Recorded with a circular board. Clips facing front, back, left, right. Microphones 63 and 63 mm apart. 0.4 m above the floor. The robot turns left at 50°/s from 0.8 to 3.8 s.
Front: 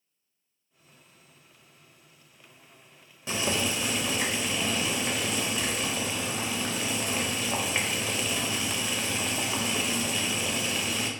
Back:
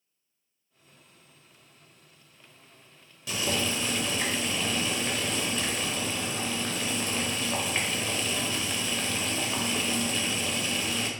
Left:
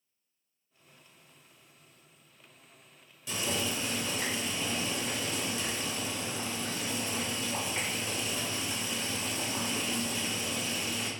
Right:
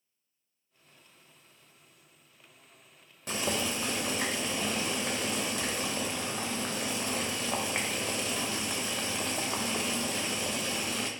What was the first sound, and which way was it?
Boiling, 55° right.